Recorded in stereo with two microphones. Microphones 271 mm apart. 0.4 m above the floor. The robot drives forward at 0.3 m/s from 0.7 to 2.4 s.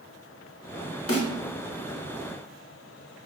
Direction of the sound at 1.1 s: 55° left (ahead or behind).